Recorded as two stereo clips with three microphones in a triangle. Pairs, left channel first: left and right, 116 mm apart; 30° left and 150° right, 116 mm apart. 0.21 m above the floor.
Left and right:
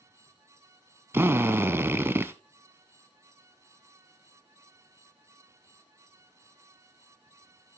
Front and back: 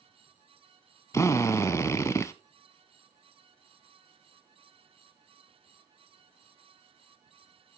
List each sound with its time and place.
1.1 s a drill: 25° right, 0.7 m